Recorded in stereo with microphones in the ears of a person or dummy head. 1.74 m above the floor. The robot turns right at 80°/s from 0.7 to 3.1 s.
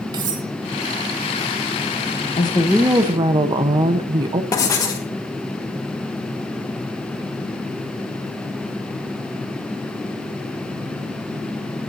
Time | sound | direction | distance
0.1 | cutlery clinking | 20° right (ahead or behind) | 1.2 m
2.4 | a woman speaking | 150° left | 1.0 m
4.5 | writing | 20° left (ahead or behind) | 1.6 m